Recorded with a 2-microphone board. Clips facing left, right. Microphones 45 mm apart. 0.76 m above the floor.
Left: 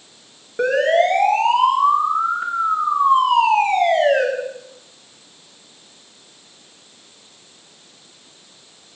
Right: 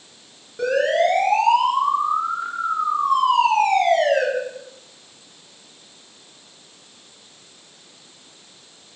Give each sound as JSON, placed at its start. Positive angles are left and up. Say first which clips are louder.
{"t": 0.6, "sound": "a siren", "louder": "left 3 dB", "side_deg": 40, "distance_m": 9.5}